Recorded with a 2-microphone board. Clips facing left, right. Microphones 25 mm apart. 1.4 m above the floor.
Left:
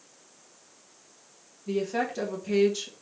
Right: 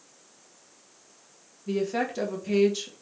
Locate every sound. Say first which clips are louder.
1.7 s a woman speaking: right 1 dB; 10° right (ahead or behind), 1.4 m